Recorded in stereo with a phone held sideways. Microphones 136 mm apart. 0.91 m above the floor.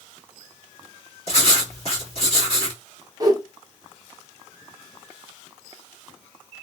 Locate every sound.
1.3 s writing: 45° left (ahead or behind), 1.7 m
3.2 s a whoosh: 30° right (ahead or behind), 0.7 m